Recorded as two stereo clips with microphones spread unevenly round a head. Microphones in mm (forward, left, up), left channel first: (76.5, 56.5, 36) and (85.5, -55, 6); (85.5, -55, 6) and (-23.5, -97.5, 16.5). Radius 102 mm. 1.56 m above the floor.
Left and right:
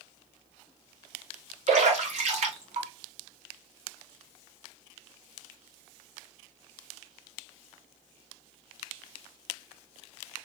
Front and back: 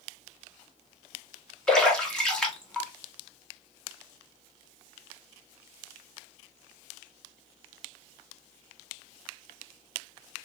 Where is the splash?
65° right, 1.7 m.